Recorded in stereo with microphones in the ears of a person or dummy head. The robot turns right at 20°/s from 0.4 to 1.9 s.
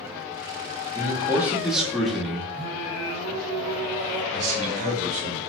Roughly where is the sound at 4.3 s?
Right.